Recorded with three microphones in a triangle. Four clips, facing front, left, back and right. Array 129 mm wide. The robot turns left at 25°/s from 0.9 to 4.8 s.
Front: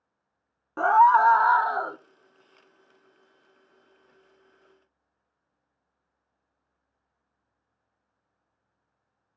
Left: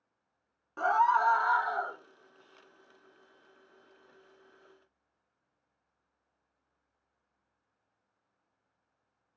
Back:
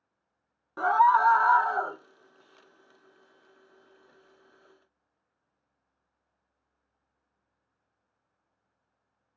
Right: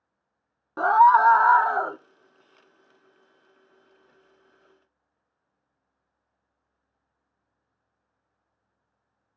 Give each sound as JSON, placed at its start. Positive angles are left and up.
{"t": 0.8, "sound": "a scream", "azimuth_deg": -50, "distance_m": 0.7}